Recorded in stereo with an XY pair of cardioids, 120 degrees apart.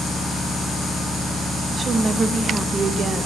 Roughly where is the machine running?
Ahead.